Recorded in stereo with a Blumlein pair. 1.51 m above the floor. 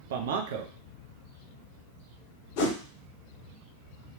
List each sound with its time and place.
0.1 s a man speaking: 55° right, 0.6 m
2.6 s a whoosh: 45° left, 0.8 m